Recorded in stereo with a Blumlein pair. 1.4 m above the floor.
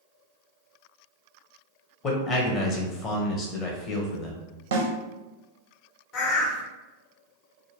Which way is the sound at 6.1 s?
35° left.